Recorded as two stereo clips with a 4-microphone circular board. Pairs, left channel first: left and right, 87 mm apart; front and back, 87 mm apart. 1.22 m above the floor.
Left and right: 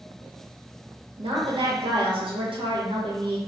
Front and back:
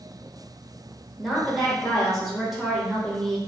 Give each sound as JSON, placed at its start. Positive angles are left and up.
{"t": 1.2, "sound": "a woman speaking", "azimuth_deg": -90, "distance_m": 1.0}